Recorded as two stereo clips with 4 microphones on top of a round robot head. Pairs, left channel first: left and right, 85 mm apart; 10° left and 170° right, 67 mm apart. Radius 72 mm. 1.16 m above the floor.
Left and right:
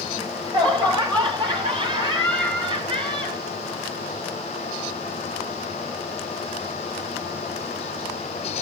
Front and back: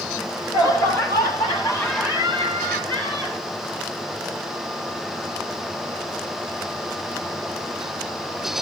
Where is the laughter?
50° right, 8.5 m; by 3.4 s 65° right, 9 m.